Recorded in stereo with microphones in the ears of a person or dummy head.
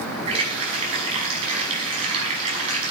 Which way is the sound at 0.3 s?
30° right (ahead or behind).